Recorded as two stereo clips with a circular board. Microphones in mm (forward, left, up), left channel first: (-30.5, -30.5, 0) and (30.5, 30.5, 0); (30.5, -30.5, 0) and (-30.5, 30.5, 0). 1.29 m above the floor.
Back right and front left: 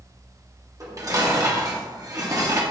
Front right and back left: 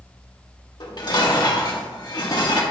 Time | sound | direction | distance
0.8 | dishes clattering | 5° right | 1.4 m